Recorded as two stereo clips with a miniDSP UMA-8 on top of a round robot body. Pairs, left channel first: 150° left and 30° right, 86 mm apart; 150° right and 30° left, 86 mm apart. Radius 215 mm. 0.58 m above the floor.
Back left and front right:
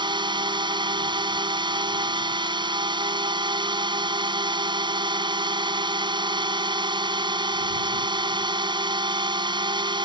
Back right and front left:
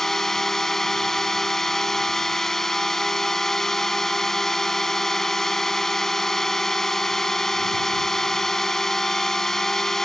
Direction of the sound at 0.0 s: 65° right.